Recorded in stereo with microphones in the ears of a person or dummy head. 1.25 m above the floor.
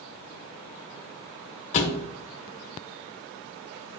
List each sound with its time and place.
1.7 s a thud: 40° left (ahead or behind), 1.4 m